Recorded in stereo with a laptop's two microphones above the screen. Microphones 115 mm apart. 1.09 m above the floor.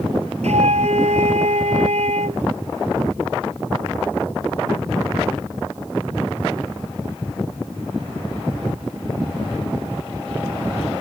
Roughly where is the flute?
Right.